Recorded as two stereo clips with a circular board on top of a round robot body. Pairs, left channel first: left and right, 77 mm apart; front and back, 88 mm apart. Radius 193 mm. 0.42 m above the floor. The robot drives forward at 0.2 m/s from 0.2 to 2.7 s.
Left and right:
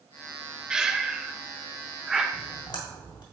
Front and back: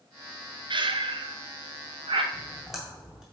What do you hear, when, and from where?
0.7 s breathing: 170° right, 0.6 m; by 2.2 s 175° right, 0.9 m
2.3 s a splash: 90° left, 1.8 m; by 3.2 s 95° left, 1.8 m